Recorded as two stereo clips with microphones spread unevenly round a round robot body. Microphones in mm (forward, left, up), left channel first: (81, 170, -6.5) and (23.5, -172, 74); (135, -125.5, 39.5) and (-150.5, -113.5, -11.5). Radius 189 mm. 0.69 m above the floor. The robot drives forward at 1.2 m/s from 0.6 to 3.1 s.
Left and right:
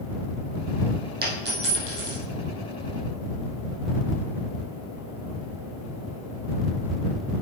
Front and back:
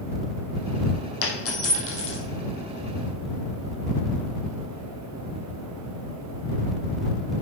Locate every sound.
1.2 s a dropped coin: 40° right, 3.5 m; by 2.2 s 55° right, 3 m